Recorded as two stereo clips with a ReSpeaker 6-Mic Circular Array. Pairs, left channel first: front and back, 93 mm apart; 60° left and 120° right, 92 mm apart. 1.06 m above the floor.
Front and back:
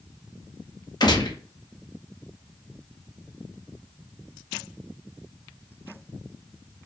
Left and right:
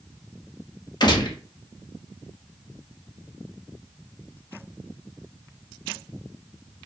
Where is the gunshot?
30° left, 1.1 m.